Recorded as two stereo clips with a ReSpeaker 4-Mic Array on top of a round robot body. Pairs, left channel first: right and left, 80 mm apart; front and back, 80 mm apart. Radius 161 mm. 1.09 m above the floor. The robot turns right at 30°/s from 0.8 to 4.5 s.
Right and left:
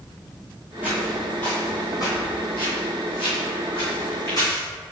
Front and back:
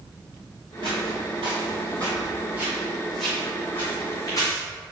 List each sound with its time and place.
0.8 s footsteps: 165° left, 1.3 m; by 4.6 s 45° right, 3.5 m